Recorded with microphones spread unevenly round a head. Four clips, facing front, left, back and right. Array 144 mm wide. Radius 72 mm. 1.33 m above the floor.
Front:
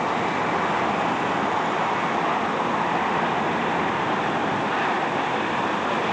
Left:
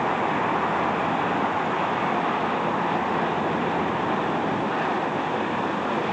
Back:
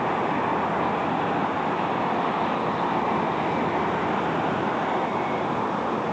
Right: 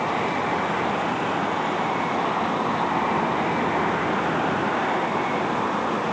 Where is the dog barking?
No dog barking in this recording.